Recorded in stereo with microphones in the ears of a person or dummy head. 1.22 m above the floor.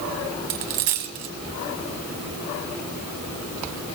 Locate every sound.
0.5 s a dropped coin: 50° right (ahead or behind), 1.6 m